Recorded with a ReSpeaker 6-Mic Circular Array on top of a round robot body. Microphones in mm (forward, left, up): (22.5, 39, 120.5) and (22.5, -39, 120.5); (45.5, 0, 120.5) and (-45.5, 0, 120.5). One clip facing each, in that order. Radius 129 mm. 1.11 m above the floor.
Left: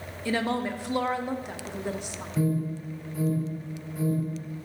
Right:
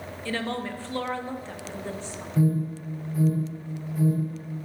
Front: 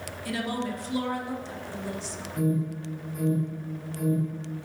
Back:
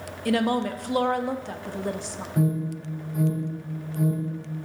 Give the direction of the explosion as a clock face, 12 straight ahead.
I don't hear an explosion.